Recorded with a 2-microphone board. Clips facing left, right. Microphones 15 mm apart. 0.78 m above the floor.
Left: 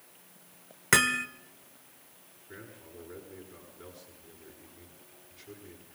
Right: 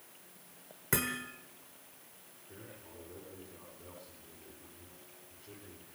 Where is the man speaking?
65° left (ahead or behind), 9.5 m.